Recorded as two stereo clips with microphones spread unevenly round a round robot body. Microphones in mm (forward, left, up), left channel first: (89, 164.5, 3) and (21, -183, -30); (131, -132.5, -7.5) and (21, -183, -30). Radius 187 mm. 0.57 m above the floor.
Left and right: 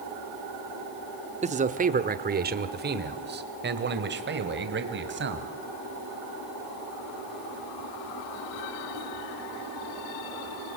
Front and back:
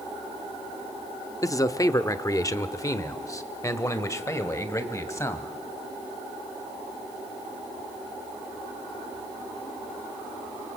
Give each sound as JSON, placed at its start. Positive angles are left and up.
{"t": 1.4, "sound": "a man speaking", "azimuth_deg": -40, "distance_m": 1.1}